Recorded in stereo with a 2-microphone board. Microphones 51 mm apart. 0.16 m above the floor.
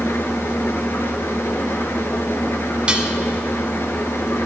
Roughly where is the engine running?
Left.